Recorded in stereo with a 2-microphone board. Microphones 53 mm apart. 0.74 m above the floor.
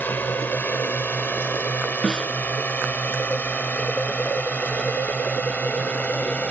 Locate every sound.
0.0 s a drone: 35° left (ahead or behind); by 6.5 s 25° left (ahead or behind)
2.0 s a snare drum: 15° left (ahead or behind)